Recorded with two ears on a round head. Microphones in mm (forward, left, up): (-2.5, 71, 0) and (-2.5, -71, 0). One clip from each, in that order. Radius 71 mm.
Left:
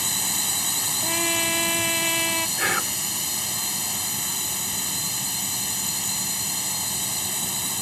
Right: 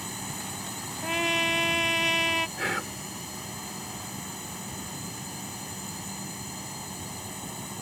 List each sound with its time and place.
0.0 s a drone: 70° left (ahead or behind)
1.0 s a trumpet: 15° right (ahead or behind)
2.6 s whispering: 20° left (ahead or behind)